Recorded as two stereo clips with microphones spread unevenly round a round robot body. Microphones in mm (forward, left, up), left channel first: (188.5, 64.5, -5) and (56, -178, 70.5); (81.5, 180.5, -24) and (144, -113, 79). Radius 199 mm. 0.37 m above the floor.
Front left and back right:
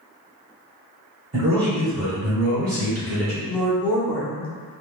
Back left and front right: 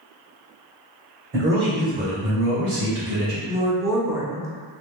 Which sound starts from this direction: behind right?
A man speaking, at 1.3 s.